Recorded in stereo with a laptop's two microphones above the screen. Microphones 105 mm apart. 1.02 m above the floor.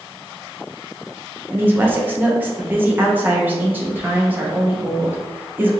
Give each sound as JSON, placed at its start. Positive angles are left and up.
{"t": 1.5, "sound": "a woman speaking", "side_deg": -20, "distance_m": 0.7}